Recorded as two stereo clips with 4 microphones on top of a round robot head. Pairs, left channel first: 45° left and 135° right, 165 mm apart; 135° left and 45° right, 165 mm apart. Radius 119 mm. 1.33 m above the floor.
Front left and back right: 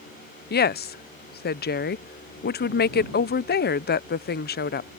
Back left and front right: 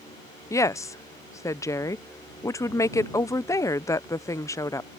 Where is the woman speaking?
60° left.